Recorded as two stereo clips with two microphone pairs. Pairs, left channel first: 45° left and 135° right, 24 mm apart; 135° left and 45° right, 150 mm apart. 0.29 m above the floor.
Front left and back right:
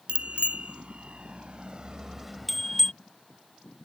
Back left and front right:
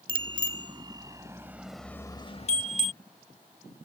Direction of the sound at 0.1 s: 100° right.